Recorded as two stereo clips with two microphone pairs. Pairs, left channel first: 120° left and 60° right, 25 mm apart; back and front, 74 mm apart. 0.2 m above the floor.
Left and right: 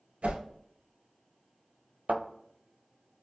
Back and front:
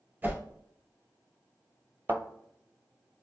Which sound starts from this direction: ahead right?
A thud, at 2.1 s.